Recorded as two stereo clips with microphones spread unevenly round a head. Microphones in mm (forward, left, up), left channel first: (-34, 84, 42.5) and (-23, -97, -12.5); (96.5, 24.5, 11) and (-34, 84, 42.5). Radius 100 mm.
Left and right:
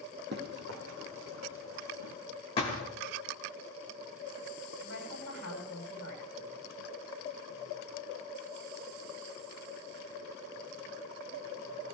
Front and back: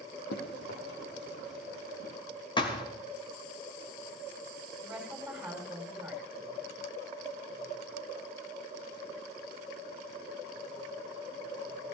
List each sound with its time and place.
0.3 s running footsteps: 40° right, 2.5 m; by 2.1 s 65° right, 3.5 m
2.6 s a thud: 35° left, 2.5 m
4.8 s a woman speaking: 70° left, 9 m